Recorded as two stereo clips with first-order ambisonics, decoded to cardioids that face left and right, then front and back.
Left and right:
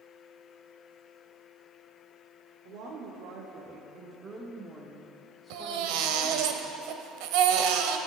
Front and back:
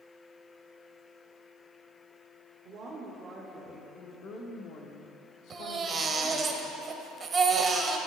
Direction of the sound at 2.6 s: 120° right.